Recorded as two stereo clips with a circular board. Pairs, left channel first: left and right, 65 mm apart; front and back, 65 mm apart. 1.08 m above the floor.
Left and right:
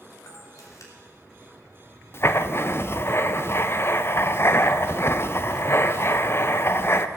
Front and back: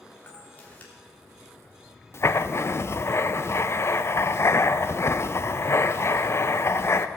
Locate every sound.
0.3 s a camera shutter: 65° left, 3 m
2.1 s writing: 45° left, 0.6 m